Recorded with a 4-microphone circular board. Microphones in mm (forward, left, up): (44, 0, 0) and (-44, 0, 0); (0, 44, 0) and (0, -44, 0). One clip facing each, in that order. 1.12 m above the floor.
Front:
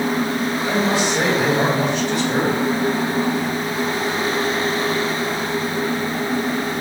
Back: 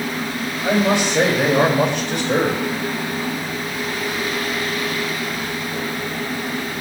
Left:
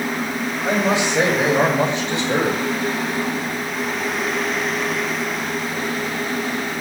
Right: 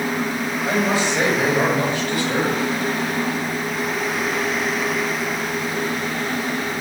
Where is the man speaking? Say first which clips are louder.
Back 4 dB, left 1 dB; 160° left, 7 m; by 2.6 s 150° left, 6 m.